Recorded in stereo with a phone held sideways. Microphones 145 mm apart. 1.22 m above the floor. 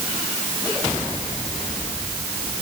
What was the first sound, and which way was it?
Only background noise.